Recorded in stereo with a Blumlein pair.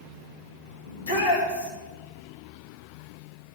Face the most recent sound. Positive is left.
turn(degrees=65)